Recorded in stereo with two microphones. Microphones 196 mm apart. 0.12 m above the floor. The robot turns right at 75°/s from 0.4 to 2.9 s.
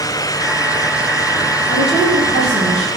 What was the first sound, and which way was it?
A woman speaking, 90° left.